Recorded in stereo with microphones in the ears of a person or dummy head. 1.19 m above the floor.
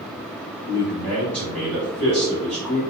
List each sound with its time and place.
0.7 s a man speaking: 10° right (ahead or behind), 1.0 m